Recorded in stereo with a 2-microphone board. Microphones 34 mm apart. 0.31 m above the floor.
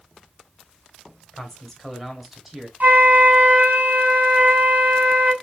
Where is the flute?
60° right (ahead or behind), 1.9 m.